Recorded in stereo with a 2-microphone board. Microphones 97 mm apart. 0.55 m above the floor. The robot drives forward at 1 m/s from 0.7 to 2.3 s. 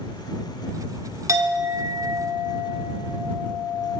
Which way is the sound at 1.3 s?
35° right (ahead or behind).